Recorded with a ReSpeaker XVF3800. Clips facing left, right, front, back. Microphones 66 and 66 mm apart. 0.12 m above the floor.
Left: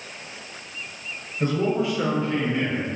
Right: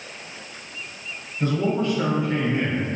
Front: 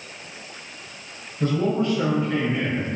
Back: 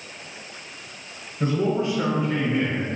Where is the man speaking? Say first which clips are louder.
Even, front 1 dB; 135° left, 1.4 m; by 2.9 s 80° right, 1.4 m.